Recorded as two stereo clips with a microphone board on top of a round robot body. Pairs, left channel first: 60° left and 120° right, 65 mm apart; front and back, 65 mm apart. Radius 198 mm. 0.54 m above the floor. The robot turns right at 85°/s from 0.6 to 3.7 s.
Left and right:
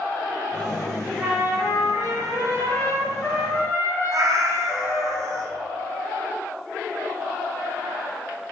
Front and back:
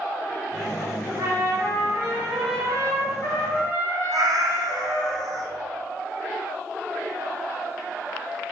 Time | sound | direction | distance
1.2 | a trumpet | 160° left | 1.7 m
4.1 | a cat meowing | 155° right | 0.6 m